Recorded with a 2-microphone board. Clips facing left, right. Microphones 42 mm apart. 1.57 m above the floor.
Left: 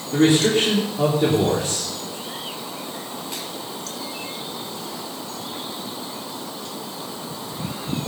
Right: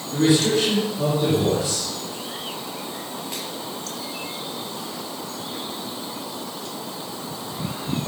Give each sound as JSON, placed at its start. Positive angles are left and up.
{"t": 0.1, "sound": "a man speaking", "side_deg": 50, "distance_m": 3.5}